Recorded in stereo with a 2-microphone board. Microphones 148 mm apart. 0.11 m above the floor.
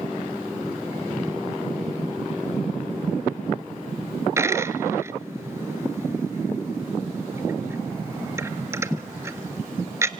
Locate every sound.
4.4 s a dropped coin: 20° right (ahead or behind), 0.7 m